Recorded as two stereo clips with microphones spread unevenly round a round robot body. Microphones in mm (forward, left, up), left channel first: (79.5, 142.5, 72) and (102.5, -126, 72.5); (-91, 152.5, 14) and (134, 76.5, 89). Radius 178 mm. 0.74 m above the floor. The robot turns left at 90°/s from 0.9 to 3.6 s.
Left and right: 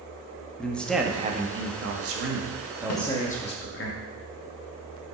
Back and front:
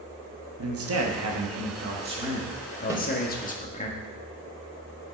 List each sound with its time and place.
0.6 s a man speaking: 10° left, 1.6 m; by 3.9 s 125° left, 1.6 m
2.9 s a snare drum: 65° left, 1.7 m; by 3.0 s 55° left, 1.7 m